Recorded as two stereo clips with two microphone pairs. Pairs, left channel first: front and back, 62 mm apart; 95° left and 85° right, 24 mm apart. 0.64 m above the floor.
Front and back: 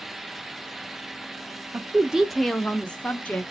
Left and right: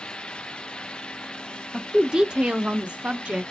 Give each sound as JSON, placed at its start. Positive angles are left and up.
{"t": 1.7, "sound": "a woman speaking", "azimuth_deg": -160, "distance_m": 0.5}